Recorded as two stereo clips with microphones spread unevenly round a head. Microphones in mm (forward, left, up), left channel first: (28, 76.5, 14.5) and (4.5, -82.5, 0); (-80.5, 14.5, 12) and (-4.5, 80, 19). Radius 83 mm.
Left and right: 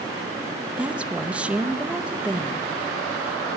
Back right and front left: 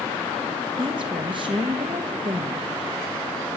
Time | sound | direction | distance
0.8 | a woman speaking | 15° right | 1.1 m